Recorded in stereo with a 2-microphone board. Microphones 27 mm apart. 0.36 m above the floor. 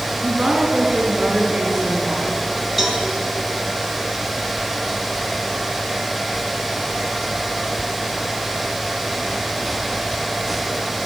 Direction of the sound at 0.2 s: 20° right (ahead or behind).